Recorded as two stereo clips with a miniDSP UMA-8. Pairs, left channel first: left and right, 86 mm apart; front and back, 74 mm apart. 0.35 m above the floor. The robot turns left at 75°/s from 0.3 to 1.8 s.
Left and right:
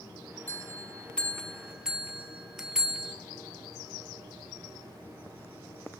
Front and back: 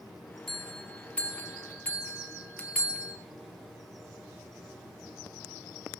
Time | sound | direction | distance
0.5 | a bell | 85° left | 0.9 m